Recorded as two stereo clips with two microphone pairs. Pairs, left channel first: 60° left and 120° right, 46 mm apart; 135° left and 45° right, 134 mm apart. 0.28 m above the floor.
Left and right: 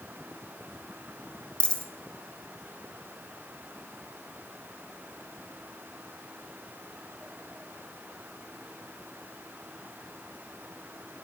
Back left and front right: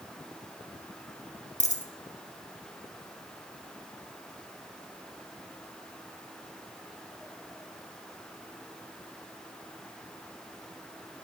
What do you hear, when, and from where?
1.6 s a dropped coin: 125° left, 1.0 m